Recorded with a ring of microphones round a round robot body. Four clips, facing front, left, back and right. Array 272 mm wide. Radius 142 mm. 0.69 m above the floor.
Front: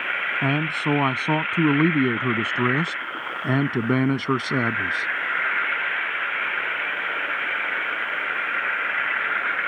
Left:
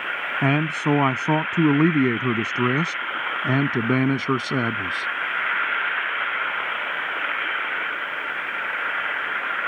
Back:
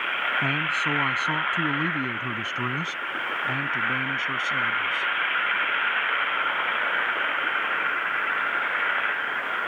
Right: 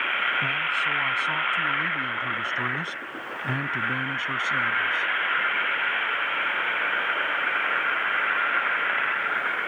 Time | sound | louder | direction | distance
0.4 | a man speaking | left 6 dB, front 3 dB | 65° left | ?